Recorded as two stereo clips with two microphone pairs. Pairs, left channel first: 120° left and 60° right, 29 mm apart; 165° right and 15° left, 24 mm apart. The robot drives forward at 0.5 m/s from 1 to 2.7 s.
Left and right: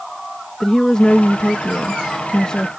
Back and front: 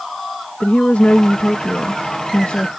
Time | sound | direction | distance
0.6 | a woman speaking | 175° right | ?